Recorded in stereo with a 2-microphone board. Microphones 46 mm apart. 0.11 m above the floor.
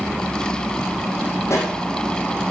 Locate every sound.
1.5 s a pop: 70° left (ahead or behind), 5 m